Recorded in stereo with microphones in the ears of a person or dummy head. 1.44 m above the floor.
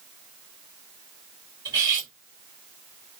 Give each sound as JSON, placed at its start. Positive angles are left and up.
{"t": 1.6, "sound": "cutlery clinking", "side_deg": -20, "distance_m": 1.3}